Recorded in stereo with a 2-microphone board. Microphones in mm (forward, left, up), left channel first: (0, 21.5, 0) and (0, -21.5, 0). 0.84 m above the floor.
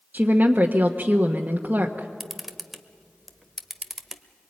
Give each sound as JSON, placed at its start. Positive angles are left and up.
{"t": 0.1, "sound": "a woman speaking", "side_deg": -45, "distance_m": 1.3}
{"t": 2.2, "sound": "a camera shutter", "side_deg": 0, "distance_m": 1.1}